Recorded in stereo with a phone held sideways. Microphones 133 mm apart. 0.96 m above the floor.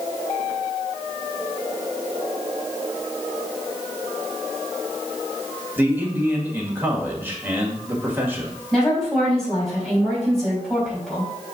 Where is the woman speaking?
5° left (ahead or behind), 3.5 m.